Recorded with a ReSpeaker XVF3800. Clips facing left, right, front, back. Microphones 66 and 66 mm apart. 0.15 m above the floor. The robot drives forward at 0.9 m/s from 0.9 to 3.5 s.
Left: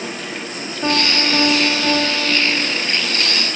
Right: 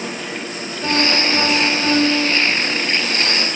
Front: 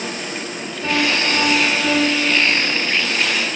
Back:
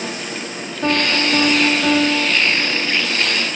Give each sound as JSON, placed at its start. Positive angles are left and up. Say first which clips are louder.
{"t": 0.8, "sound": "a piano", "louder": "even, back 1 dB", "azimuth_deg": 150, "distance_m": 3.0}